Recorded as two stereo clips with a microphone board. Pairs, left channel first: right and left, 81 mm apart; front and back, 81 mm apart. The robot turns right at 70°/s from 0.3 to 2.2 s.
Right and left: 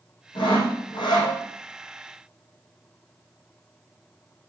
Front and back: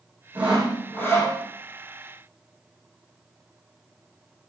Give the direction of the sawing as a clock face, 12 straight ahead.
4 o'clock.